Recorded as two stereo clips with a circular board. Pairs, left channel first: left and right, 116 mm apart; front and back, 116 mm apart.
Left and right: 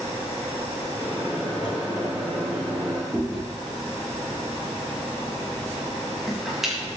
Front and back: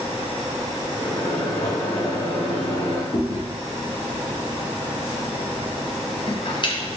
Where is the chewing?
5° right, 0.7 m.